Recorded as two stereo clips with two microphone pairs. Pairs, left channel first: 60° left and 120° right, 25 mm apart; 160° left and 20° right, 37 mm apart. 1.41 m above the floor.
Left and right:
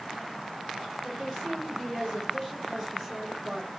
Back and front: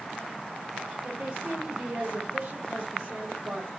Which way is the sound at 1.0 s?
5° right.